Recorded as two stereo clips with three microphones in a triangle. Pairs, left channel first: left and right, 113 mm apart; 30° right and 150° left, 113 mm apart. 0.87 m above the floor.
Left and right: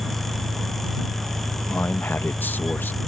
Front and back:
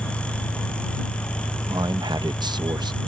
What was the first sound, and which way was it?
An engine running, 80° right.